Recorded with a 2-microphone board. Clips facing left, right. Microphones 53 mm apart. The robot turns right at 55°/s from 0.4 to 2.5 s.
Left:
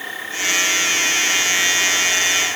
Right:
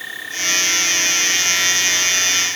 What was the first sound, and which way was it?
Only background noise.